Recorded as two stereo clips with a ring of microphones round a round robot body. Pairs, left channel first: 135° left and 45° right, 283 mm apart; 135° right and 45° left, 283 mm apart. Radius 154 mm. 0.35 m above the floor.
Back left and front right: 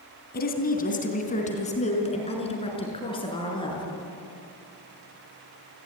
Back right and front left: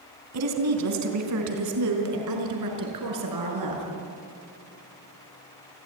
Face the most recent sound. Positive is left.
turn(degrees=60)